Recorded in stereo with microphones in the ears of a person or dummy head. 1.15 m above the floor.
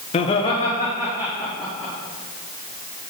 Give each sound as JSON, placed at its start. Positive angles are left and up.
{"t": 0.1, "sound": "laughter", "side_deg": 30, "distance_m": 0.7}